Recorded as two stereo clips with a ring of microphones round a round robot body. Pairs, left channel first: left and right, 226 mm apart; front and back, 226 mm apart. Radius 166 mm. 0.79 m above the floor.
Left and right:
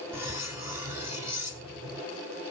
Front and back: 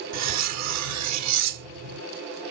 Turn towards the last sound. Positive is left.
turn(degrees=-175)